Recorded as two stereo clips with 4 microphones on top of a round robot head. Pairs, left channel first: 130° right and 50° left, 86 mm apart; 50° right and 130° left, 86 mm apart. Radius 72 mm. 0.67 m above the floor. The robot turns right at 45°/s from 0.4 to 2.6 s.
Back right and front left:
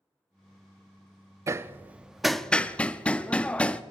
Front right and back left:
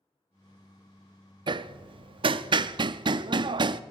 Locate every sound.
1.5 s hammering: 105° left, 0.5 m; by 3.8 s 155° left, 0.5 m